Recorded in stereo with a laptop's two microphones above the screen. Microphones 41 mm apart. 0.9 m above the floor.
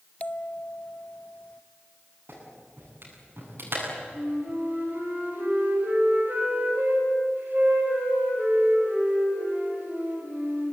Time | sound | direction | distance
0.2 | a bell | 35° left (ahead or behind) | 0.5 m
2.3 | a clap | 65° right (ahead or behind) | 9 m
4.1 | a flute | 50° right (ahead or behind) | 6 m